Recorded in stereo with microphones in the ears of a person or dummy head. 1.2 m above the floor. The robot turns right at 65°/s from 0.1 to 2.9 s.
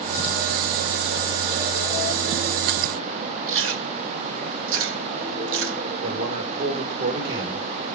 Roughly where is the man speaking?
Right.